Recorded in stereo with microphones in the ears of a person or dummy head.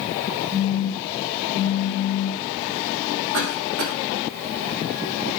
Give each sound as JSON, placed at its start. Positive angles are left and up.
{"t": 0.5, "sound": "a phone buzzing", "side_deg": -60, "distance_m": 4.0}
{"t": 3.3, "sound": "a cough", "side_deg": -70, "distance_m": 3.0}